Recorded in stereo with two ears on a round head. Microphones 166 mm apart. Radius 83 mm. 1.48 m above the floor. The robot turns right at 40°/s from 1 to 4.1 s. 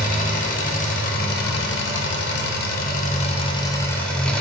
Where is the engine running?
50° left, 0.8 m; by 4.4 s 175° left, 0.8 m.